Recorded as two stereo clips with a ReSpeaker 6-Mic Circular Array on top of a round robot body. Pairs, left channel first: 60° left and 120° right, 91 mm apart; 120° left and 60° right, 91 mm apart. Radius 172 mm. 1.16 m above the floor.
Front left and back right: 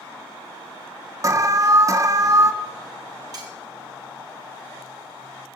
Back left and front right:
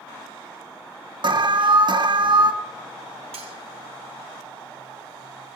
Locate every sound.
1.2 s an alarm: 70° right, 1.3 m
3.3 s cutlery clinking: 70° right, 1.1 m